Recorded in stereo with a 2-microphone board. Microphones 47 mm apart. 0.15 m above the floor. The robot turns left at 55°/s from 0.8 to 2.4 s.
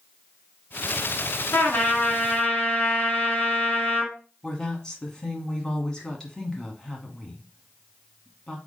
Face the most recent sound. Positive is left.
turn(degrees=10)  # may be behind; listen again after turning